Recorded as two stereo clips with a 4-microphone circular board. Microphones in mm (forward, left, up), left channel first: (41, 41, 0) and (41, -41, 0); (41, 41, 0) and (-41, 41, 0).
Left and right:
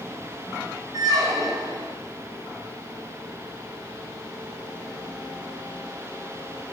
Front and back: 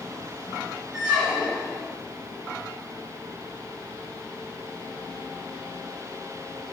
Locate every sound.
0.9 s a squeak: 90° right, 1.2 m